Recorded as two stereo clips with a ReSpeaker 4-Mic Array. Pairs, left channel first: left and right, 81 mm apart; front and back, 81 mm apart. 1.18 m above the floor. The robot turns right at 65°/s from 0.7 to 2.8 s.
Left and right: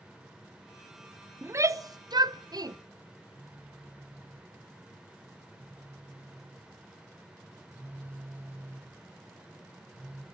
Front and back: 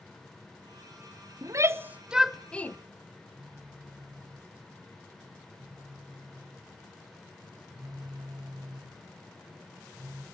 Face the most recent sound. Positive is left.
turn(degrees=-155)